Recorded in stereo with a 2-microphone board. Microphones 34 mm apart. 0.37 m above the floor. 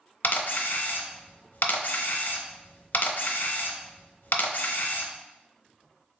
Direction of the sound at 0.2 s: 70° left (ahead or behind).